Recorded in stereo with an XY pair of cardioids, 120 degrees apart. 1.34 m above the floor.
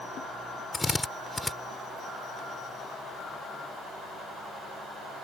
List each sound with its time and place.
0.7 s a drill: 10° left